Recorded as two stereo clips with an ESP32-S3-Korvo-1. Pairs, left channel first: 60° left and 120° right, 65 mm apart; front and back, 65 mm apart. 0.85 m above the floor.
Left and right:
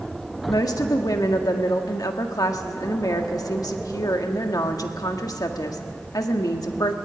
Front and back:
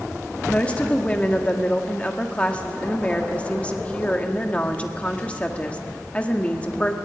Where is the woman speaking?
70° left, 1.6 m.